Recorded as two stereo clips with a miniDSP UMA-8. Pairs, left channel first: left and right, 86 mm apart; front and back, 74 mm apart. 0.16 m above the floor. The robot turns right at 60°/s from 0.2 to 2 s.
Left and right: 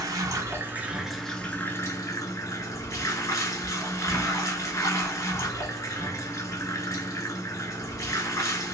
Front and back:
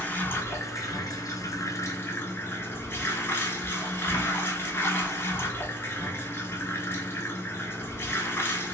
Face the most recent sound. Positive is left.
turn(degrees=50)